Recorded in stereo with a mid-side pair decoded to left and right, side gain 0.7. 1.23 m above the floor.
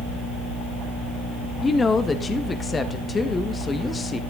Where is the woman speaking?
25° left, 1.2 m.